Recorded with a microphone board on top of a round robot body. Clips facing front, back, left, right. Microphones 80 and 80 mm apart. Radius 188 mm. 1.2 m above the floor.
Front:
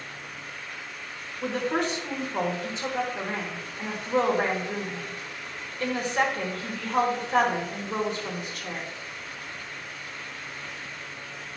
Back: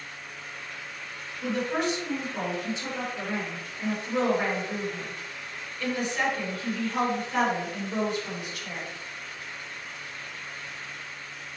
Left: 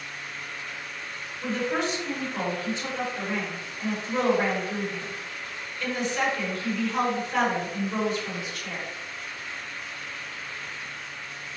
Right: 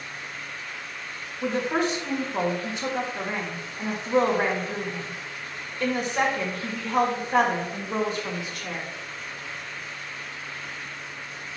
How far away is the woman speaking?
About 3.5 m.